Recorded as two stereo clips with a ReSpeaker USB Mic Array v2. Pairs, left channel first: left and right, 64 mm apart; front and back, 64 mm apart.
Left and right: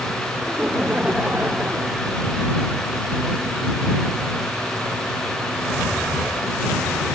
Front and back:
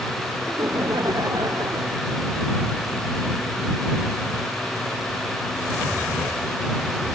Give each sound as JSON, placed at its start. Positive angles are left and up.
{"t": 0.5, "sound": "laughter", "azimuth_deg": -160}